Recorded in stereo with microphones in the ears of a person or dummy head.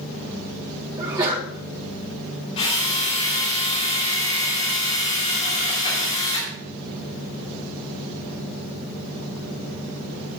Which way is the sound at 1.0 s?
20° right (ahead or behind).